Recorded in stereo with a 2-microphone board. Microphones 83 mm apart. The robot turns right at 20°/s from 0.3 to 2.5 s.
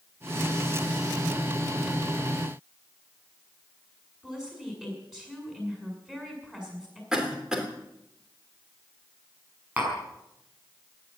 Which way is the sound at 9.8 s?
15° right (ahead or behind).